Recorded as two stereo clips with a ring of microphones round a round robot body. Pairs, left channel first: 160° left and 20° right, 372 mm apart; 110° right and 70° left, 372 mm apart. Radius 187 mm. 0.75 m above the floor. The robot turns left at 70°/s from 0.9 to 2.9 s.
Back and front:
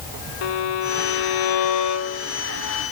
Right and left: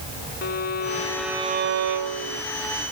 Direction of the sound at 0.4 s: Straight behind.